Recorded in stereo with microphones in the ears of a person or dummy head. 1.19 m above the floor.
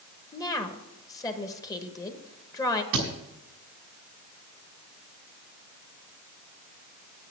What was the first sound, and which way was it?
A woman speaking, 20° left (ahead or behind).